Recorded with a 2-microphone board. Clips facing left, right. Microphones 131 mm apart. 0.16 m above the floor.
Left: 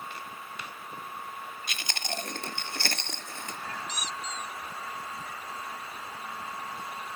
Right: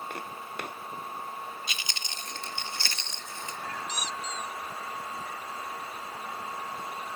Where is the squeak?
30° right (ahead or behind).